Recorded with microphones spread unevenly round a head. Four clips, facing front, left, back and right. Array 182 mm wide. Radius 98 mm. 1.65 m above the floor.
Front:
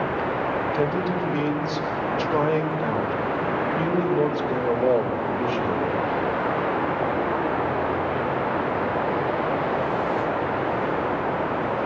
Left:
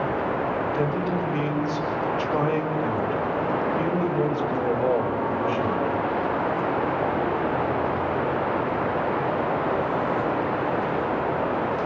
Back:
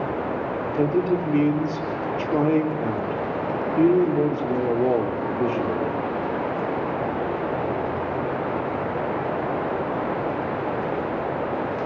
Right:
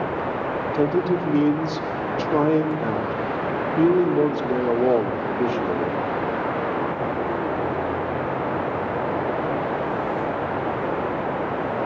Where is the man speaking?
130° right, 3.5 m.